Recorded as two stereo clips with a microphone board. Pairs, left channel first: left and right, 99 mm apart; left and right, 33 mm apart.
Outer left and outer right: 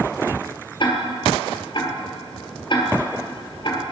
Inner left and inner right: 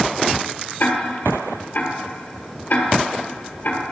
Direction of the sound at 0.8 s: 55° left (ahead or behind).